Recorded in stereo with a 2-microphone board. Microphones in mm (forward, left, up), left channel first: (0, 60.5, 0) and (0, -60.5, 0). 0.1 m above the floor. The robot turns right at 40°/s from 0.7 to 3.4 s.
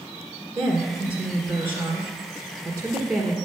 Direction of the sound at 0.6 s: 5° right (ahead or behind).